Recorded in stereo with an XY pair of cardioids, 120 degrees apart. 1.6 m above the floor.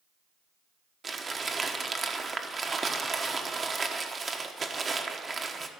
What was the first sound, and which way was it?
Crumpling, 25° right.